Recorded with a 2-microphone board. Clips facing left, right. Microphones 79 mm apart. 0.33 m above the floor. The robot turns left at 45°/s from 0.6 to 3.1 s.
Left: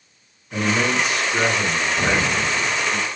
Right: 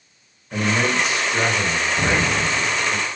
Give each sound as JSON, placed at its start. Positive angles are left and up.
{"t": 0.5, "sound": "a man speaking", "azimuth_deg": -110, "distance_m": 1.8}
{"t": 2.0, "sound": "an explosion", "azimuth_deg": -20, "distance_m": 0.8}